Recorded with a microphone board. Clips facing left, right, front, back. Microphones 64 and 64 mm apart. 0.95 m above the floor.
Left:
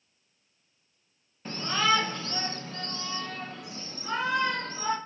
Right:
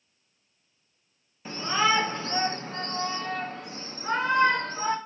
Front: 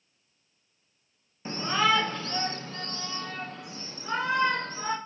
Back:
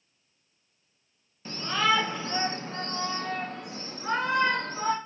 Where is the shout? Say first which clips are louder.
Right 2 dB, front 1 dB; 10° right, 0.6 m; by 5.0 s 145° right, 2 m.